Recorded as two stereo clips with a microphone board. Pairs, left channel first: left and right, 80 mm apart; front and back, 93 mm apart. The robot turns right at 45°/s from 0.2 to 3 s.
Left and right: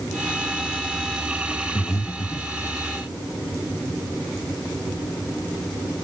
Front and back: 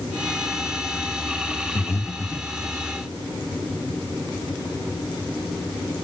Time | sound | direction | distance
1.8 | breathing | 50° left | 1.0 m